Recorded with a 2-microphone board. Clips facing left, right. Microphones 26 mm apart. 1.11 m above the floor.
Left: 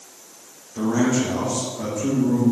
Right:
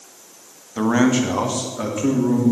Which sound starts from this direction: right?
A man speaking, at 0.8 s.